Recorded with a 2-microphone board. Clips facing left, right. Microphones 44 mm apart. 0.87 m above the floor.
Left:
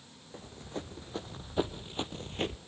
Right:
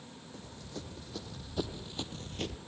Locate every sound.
0.3 s running footsteps: 30° left (ahead or behind), 3 m